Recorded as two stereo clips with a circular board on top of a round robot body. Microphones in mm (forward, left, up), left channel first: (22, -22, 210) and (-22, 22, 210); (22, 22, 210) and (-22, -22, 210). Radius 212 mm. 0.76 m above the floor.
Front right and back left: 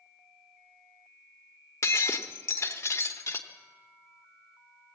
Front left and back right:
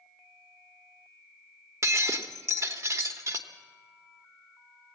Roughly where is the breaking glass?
Right.